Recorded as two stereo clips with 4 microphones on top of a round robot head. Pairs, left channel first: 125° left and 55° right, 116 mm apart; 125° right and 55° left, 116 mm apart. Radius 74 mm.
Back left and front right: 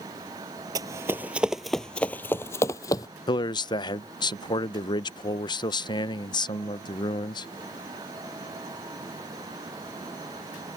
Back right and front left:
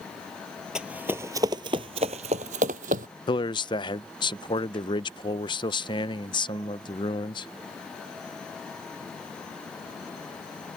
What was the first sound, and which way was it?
Running footsteps, 25° right.